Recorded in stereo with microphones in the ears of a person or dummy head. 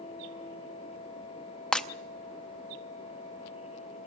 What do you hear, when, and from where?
1.7 s breaking glass: 5° left (ahead or behind), 0.7 m